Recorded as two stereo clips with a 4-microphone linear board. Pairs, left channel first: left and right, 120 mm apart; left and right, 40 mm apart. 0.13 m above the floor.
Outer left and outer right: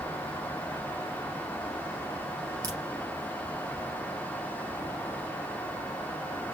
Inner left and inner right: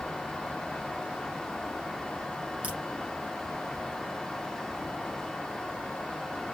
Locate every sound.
2.6 s a crack: 25° right (ahead or behind), 2.5 m